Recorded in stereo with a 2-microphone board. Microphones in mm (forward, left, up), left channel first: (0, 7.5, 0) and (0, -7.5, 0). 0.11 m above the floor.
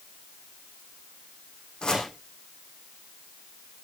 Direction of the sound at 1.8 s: 60° left (ahead or behind).